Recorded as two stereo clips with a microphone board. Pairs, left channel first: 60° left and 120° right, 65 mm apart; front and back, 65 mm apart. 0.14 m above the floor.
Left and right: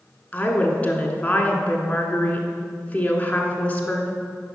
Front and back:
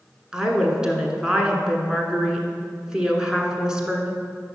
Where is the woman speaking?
110° left, 1.3 m.